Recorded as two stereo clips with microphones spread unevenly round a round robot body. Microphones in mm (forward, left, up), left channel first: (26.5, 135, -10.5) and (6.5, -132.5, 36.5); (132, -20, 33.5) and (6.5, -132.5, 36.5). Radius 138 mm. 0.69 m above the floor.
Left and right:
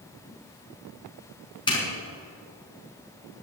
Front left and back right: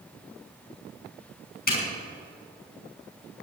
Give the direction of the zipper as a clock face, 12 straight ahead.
12 o'clock.